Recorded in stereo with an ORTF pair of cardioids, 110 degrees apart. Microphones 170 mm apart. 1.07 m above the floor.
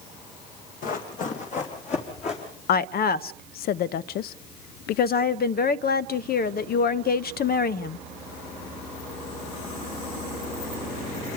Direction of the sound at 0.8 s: 55° left.